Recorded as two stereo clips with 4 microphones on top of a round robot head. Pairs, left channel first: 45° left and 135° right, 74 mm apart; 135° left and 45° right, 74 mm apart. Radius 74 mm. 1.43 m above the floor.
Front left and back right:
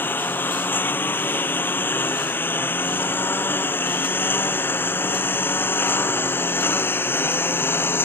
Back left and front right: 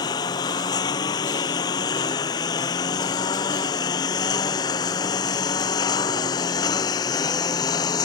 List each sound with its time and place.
0.0 s a lawn mower: 105° left